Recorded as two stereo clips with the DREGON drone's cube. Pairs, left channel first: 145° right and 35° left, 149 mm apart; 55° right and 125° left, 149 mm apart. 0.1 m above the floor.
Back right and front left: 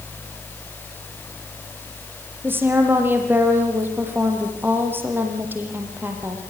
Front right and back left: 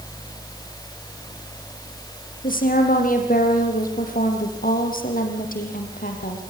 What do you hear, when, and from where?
2.4 s a woman speaking: 40° right, 5 m